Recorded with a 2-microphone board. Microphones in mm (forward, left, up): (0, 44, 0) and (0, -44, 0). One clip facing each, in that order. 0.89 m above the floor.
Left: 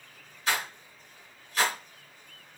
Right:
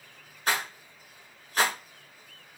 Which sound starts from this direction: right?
A rattle, at 0.5 s.